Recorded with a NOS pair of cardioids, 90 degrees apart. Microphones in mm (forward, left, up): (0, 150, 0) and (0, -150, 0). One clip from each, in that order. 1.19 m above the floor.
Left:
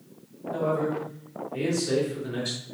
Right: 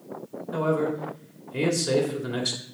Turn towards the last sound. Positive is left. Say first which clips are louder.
# right 1 dB
turn(degrees=-40)